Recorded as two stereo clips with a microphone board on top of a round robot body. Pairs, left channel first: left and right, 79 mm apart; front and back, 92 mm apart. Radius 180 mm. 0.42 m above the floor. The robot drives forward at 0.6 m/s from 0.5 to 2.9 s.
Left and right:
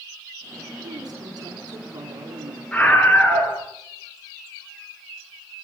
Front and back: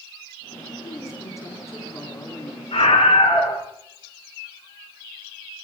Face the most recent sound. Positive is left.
turn(degrees=20)